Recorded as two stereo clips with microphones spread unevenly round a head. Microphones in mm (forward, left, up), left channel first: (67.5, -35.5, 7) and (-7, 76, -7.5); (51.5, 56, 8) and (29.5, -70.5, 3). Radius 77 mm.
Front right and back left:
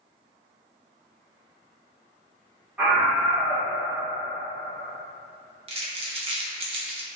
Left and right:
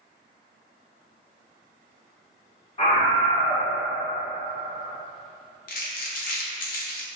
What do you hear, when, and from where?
2.8 s a scream: 50° left, 1.4 m
5.7 s crumpling: 75° left, 0.6 m